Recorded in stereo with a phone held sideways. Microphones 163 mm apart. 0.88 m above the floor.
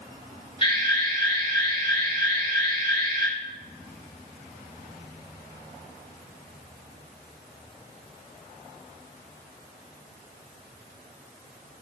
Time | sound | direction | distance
0.6 | an alarm | 30° left (ahead or behind) | 4.5 m